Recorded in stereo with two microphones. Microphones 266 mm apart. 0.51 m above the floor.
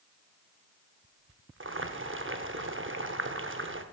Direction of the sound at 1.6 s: 45° right (ahead or behind).